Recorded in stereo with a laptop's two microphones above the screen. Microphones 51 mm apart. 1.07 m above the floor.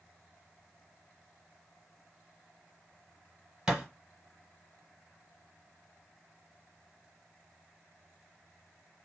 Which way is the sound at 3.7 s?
15° right (ahead or behind).